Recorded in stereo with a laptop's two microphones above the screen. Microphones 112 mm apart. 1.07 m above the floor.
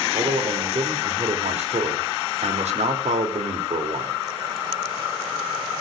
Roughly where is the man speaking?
Right.